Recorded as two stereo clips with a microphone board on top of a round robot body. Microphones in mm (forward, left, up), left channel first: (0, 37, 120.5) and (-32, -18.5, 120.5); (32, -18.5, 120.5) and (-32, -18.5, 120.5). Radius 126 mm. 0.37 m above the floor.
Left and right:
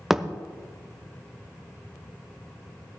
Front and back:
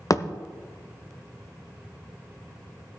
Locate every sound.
0.1 s a thud: 35° right, 0.7 m